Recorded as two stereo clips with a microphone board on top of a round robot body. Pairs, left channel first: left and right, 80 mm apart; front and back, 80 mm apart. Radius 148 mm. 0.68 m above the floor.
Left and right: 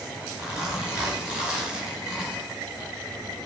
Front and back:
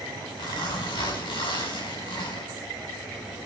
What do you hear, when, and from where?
0.4 s a zipper: 10° right, 5 m